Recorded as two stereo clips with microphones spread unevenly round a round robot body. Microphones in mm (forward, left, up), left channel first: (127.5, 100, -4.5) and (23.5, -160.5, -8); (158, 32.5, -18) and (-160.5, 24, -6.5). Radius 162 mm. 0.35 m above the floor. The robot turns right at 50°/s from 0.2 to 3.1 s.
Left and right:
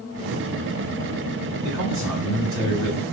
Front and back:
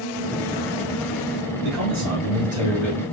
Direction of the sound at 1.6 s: 145° right.